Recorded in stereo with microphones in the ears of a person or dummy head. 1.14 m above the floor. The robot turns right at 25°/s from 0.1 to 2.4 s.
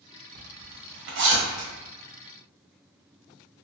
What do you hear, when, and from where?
0.3 s a zipper: 75° right (ahead or behind), 1.6 m; by 1.7 s 50° right (ahead or behind), 1.6 m